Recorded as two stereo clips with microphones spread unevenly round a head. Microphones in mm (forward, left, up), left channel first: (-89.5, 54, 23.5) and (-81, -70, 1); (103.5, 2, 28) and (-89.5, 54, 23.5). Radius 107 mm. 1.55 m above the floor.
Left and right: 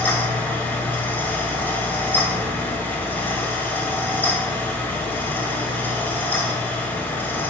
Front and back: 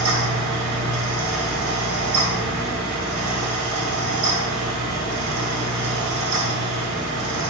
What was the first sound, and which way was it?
A fan, 165° left.